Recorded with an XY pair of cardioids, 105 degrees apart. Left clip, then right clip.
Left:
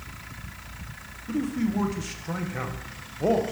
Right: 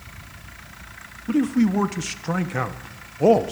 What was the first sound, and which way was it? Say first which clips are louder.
A man speaking: right 7 dB; 50° right.